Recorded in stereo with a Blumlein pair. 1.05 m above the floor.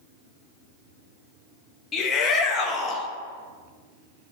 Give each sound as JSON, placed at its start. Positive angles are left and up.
{"t": 1.9, "sound": "a shout", "azimuth_deg": 20, "distance_m": 1.3}